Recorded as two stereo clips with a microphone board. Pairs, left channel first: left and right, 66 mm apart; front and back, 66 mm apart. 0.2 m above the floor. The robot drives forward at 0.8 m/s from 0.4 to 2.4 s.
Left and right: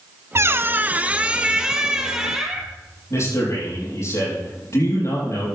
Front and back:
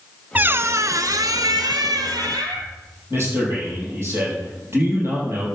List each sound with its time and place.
0.3 s a squeak: 120° right, 0.5 m; by 2.7 s 170° right, 1.9 m
3.1 s a man speaking: 130° left, 7 m